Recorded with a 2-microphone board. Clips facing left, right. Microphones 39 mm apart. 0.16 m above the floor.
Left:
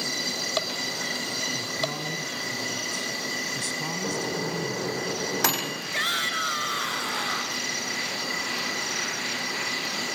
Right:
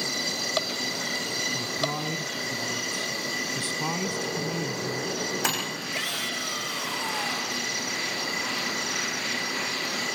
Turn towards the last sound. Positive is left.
turn(degrees=55)  # may be behind; listen again after turning